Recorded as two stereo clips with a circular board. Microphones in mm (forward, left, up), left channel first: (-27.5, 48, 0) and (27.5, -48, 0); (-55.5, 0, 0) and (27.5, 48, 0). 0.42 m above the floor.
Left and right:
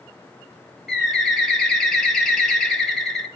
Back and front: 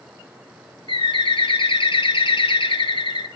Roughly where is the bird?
Behind right.